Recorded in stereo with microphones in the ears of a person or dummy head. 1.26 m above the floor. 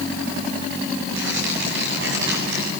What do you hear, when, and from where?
1.1 s tearing paper: 75° right (ahead or behind), 7.5 m